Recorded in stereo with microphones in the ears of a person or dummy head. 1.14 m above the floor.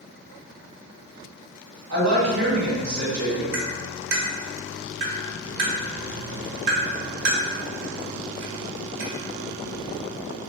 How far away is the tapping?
About 1.4 m.